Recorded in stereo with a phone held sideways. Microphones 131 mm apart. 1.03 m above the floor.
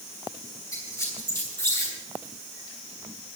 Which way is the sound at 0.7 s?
20° left (ahead or behind).